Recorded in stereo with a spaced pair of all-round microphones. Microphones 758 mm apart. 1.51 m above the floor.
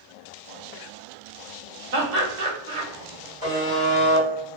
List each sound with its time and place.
1.9 s laughter: 65° right (ahead or behind), 0.8 m
3.4 s a buzzer: 10° left (ahead or behind), 1.6 m